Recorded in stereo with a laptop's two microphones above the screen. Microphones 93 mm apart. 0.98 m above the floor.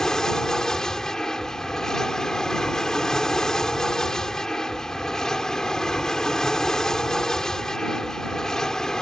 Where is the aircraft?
5° left (ahead or behind).